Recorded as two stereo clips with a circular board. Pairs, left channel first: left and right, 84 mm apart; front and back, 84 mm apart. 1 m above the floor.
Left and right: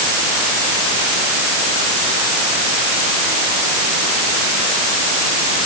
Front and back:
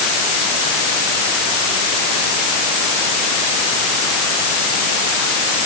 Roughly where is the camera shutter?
No camera shutter in this recording.